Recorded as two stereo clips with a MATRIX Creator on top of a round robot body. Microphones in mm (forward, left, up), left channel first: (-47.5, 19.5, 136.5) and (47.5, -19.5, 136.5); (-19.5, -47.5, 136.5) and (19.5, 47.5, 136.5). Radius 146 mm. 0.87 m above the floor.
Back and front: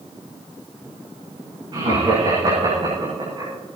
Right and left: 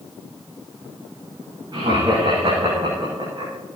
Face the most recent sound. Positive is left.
turn(degrees=15)